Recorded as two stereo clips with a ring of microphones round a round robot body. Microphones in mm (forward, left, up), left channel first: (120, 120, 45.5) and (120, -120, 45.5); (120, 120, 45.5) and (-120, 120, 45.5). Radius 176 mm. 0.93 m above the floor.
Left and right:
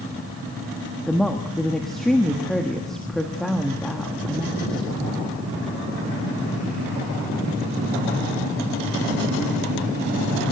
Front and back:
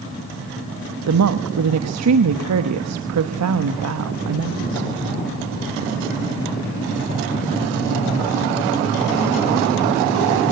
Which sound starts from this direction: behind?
A woman speaking, at 1.1 s.